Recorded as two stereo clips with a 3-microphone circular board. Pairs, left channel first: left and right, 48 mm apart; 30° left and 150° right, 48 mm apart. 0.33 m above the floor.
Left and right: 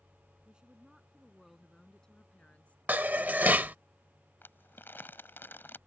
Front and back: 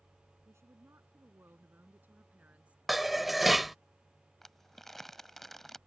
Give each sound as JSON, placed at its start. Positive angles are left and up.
{"t": 0.5, "sound": "a woman speaking", "azimuth_deg": -160}
{"t": 2.9, "sound": "dishes clattering", "azimuth_deg": -60}
{"t": 4.4, "sound": "crumpling", "azimuth_deg": 115}